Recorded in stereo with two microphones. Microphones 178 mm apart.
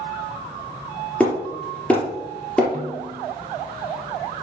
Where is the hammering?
5° left (ahead or behind), 4 m.